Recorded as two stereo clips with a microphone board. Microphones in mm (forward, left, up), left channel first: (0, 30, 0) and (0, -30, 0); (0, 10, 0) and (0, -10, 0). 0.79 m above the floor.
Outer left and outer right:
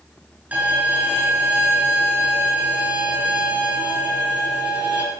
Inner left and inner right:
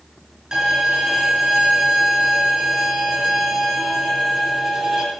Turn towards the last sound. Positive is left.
turn(degrees=-25)  # may be behind; listen again after turning